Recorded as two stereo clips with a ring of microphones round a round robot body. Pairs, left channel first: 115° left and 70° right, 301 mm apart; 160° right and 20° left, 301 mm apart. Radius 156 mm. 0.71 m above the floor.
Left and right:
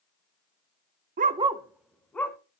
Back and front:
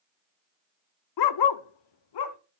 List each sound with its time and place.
1.2 s a dog barking: 130° right, 0.5 m; by 2.4 s 165° right, 1.2 m